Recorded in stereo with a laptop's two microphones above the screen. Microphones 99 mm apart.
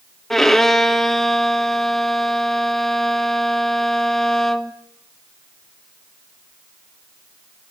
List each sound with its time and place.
0.3 s a violin: 5° left (ahead or behind), 1.3 m